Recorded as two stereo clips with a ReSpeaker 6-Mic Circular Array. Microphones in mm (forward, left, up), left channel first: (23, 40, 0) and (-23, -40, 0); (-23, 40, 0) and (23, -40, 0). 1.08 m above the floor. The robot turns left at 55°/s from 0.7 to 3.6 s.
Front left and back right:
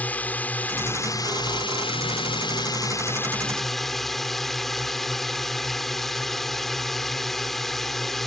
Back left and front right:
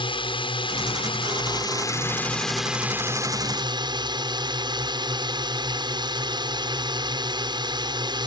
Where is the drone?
135° left; by 8.3 s 25° right.